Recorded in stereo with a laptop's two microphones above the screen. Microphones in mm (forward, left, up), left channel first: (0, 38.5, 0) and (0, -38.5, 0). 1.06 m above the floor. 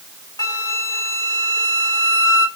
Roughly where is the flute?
Left.